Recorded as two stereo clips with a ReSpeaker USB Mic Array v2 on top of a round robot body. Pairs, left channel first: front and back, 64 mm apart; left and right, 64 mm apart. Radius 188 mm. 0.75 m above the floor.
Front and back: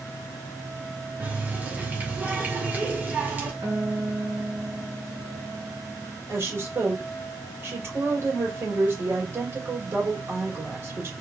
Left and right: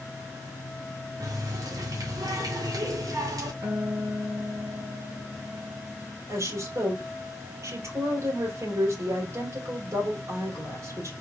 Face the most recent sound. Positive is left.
turn(degrees=-135)